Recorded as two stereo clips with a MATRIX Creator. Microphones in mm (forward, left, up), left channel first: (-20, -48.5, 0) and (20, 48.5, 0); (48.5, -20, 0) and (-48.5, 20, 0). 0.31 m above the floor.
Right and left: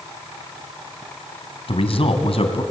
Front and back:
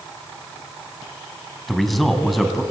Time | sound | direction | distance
1.7 | a man speaking | 110° right | 3 m